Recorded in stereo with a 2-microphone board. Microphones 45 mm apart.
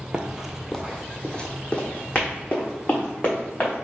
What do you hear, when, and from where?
0.1 s running footsteps: 20° right (ahead or behind), 0.6 m; by 3.7 s 35° left (ahead or behind), 3 m